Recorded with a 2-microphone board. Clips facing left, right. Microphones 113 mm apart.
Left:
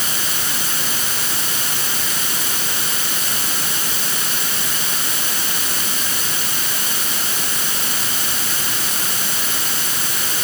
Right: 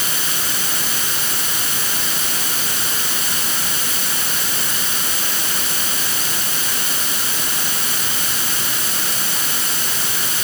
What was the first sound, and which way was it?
Only background noise.